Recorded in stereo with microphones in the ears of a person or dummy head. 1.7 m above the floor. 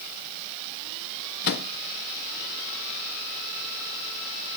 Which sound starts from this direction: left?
A microwave, at 1.4 s.